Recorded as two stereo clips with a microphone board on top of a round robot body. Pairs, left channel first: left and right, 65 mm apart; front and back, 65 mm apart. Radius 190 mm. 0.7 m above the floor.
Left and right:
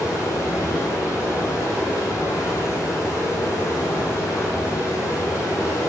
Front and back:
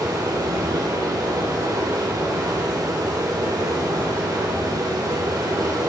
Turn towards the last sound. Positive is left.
turn(degrees=140)